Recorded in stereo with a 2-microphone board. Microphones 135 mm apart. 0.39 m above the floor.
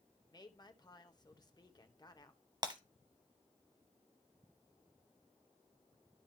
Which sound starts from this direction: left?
A woman speaking, at 0.3 s.